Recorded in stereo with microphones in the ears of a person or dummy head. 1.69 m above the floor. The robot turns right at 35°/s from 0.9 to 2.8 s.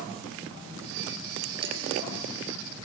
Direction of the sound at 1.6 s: 25° right (ahead or behind).